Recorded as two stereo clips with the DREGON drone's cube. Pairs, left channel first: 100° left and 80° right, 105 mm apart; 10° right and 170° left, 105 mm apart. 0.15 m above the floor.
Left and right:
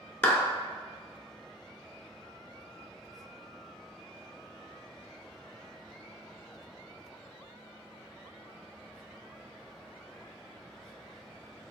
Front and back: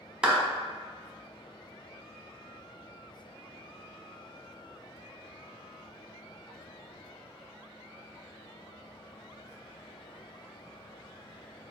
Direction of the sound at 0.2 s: 105° left.